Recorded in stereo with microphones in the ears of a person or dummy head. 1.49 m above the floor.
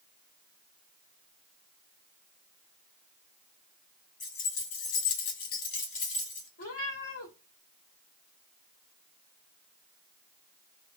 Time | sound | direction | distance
4.2 | keys jangling | 35° left (ahead or behind) | 0.9 m
6.6 | a cat meowing | 30° left (ahead or behind) | 1.2 m